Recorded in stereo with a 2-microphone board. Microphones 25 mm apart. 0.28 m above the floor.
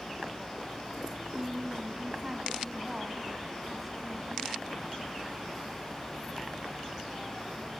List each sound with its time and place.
1.3 s a woman speaking: 45° right (ahead or behind), 1.5 m; by 4.6 s centre (ahead or behind), 2 m